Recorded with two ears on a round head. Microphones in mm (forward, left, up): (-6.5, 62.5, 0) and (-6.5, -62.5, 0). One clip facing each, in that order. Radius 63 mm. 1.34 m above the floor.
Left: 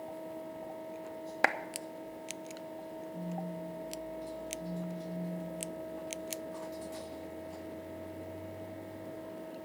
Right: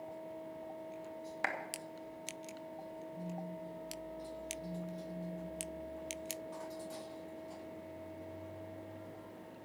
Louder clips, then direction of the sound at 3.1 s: Left 5 dB; 30° right (ahead or behind).